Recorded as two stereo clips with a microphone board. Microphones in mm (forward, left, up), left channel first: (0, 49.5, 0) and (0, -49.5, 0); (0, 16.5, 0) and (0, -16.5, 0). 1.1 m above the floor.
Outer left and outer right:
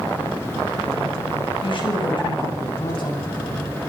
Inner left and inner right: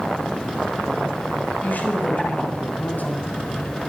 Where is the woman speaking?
60° left (ahead or behind), 7 m; by 3.7 s 55° left (ahead or behind), 10 m.